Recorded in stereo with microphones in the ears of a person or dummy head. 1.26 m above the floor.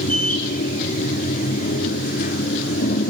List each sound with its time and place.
0.0 s a machine running: 45° left (ahead or behind), 2.5 m